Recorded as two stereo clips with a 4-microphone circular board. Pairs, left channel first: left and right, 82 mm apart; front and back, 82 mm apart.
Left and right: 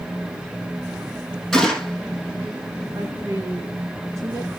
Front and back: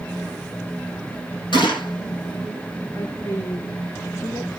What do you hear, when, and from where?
1.5 s a gunshot: straight ahead, 6 m
2.9 s a woman speaking: 45° right, 3 m